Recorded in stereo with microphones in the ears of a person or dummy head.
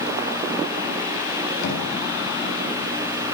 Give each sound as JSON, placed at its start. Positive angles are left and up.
{"t": 1.6, "sound": "knocking", "side_deg": 60, "distance_m": 8.0}